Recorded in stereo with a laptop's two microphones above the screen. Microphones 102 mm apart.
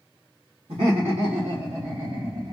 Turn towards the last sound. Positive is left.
turn(degrees=-60)  # may be behind; listen again after turning